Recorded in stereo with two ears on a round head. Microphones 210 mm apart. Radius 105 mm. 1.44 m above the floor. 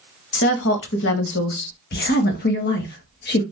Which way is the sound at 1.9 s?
45° left (ahead or behind).